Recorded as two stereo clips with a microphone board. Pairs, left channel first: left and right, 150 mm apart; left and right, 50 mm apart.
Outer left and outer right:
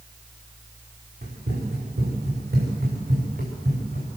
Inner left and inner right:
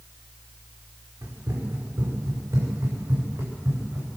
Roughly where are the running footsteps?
Right.